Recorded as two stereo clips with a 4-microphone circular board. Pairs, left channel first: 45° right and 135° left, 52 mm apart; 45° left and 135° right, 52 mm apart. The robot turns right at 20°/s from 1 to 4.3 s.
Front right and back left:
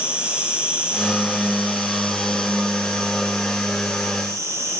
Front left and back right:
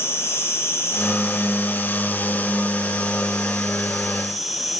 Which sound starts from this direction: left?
An insect, at 0.0 s.